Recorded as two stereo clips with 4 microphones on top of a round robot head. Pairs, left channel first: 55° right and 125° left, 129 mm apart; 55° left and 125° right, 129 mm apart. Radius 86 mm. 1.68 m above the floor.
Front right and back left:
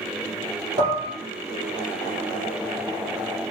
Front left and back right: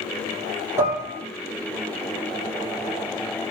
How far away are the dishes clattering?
About 3 m.